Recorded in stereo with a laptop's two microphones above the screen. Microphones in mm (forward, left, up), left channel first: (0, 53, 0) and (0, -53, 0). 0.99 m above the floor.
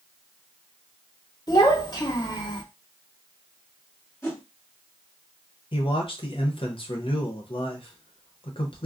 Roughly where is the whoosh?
Left.